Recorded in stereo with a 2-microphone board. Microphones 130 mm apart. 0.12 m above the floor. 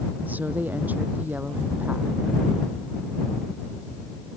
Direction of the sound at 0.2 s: 15° right (ahead or behind).